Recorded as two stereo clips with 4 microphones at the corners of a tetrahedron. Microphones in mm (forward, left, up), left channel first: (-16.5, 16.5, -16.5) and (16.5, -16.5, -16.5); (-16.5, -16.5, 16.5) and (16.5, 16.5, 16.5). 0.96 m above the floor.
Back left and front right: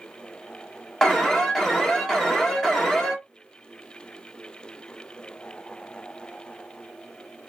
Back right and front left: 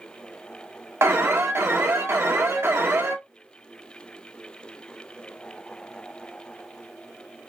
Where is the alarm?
55° left, 1.1 m.